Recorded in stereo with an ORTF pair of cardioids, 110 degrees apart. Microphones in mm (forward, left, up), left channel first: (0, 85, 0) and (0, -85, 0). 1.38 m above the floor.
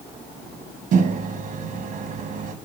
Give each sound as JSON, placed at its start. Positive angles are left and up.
{"t": 0.9, "sound": "a microwave", "azimuth_deg": -50, "distance_m": 1.1}